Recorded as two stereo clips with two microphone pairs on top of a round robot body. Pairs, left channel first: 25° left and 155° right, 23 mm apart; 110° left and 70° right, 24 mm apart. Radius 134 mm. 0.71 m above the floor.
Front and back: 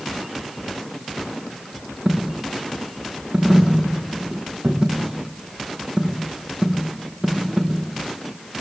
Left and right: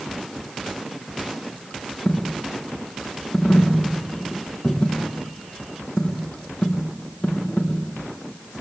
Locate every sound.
2.0 s a dropped coin: 155° left, 4.5 m